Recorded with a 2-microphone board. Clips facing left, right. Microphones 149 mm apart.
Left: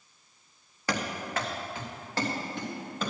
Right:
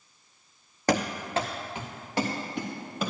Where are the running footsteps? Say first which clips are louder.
Right 6 dB; 45° right (ahead or behind), 1.0 m; by 3.1 s 10° right (ahead or behind), 4 m.